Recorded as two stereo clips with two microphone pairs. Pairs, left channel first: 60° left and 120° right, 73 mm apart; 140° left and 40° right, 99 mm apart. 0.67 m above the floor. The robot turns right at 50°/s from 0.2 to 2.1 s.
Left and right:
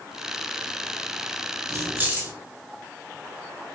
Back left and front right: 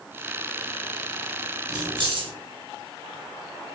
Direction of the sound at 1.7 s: 85° right.